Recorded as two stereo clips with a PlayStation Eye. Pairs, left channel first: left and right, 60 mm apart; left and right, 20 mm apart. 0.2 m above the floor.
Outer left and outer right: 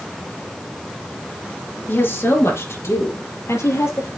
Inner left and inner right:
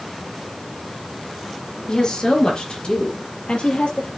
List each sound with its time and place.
1.9 s a woman speaking: 40° left (ahead or behind), 4 m; by 4.1 s 60° left (ahead or behind), 6.5 m